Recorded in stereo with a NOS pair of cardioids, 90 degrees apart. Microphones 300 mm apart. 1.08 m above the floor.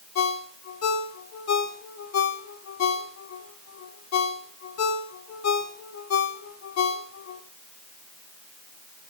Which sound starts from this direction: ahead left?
A ringtone, at 0.1 s.